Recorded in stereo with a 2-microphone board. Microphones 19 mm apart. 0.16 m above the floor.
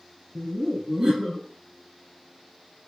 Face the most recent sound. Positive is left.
turn(degrees=-35)  # may be behind; listen again after turning